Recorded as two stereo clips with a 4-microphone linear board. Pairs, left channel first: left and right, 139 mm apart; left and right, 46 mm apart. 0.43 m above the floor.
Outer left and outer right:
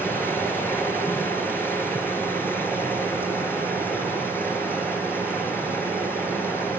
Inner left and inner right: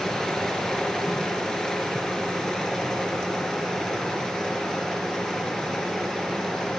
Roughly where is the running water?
Centre.